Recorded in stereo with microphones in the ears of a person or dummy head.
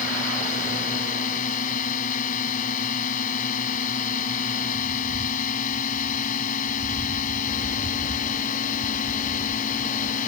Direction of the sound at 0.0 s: 45° left (ahead or behind).